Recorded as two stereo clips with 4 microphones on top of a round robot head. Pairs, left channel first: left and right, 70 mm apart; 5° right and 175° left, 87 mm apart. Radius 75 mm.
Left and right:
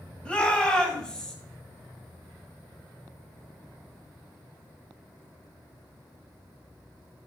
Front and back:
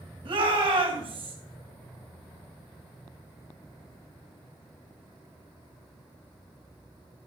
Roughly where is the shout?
Behind.